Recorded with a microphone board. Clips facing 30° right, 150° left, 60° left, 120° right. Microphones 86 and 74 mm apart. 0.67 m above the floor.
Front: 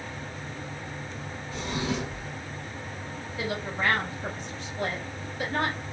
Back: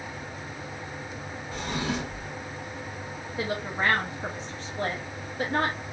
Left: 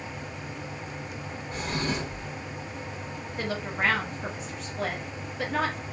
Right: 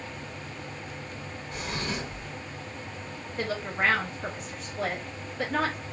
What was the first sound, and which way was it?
A drawer, 115° left.